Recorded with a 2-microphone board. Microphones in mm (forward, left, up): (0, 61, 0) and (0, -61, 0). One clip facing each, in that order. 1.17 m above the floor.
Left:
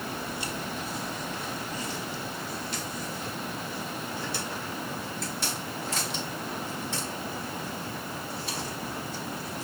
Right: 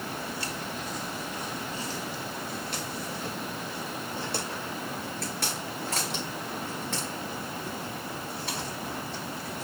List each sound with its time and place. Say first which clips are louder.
0.1 s footsteps: left 1 dB; 30° left (ahead or behind), 1.8 m; by 9.6 s 70° right (ahead or behind), 9 m